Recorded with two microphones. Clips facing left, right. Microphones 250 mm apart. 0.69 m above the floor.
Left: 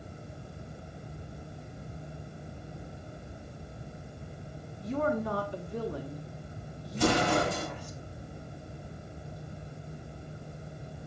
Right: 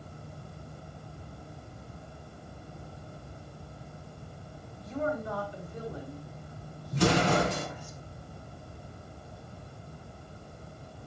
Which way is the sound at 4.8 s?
65° left (ahead or behind).